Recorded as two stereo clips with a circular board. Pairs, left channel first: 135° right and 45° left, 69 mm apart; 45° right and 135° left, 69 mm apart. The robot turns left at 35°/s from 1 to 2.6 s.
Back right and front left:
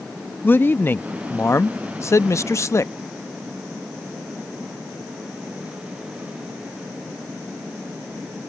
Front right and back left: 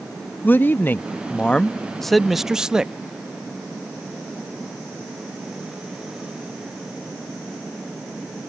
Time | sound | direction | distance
0.4 | a man speaking | 90° right | ?